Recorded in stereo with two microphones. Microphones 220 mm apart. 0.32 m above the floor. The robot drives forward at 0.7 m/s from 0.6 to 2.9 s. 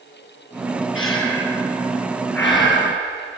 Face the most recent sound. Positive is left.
turn(degrees=55)  # may be behind; listen again after turning